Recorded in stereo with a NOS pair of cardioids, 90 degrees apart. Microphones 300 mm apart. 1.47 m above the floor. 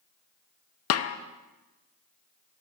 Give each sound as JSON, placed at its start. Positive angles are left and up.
{"t": 0.9, "sound": "a snare drum", "azimuth_deg": 55, "distance_m": 0.6}